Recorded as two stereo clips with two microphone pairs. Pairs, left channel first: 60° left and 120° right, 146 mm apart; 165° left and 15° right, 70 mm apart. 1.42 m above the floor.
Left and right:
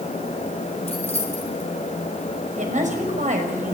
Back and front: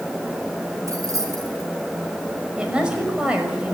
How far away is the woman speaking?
About 6 m.